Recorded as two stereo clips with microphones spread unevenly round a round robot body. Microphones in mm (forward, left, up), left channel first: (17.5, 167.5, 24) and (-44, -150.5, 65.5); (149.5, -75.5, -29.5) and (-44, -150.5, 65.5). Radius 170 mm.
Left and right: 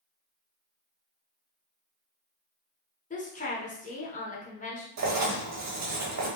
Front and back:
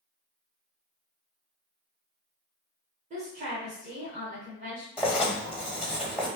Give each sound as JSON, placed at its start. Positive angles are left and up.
{"t": 3.1, "sound": "a woman speaking", "azimuth_deg": 120, "distance_m": 0.9}
{"t": 5.0, "sound": "writing", "azimuth_deg": -60, "distance_m": 1.2}